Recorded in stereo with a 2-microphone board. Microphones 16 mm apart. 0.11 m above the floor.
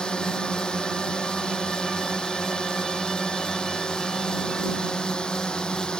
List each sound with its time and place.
0.0 s a drone: 70° left (ahead or behind)